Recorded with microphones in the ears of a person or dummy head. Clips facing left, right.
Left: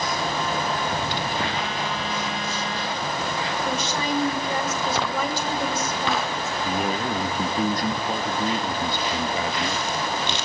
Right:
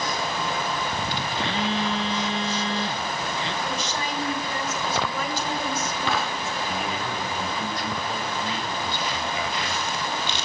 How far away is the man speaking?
About 1.9 m.